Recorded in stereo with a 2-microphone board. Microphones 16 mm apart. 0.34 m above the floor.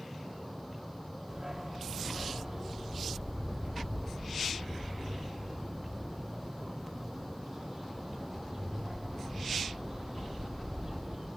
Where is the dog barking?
15° right (ahead or behind), 5 m.